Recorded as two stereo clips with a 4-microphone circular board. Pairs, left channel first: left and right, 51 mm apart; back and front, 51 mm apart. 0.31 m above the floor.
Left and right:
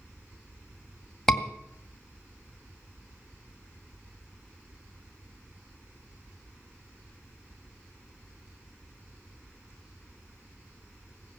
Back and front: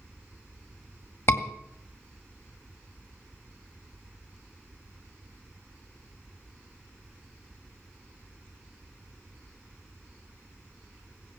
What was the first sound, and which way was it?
A scream, 170° left.